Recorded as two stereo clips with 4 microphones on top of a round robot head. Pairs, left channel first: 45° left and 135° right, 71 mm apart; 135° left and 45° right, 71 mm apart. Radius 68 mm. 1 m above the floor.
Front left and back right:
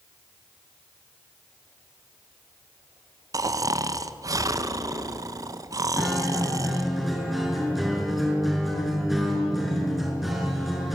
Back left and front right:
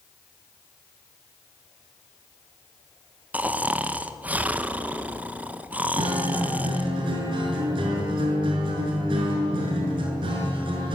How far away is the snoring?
About 1.2 m.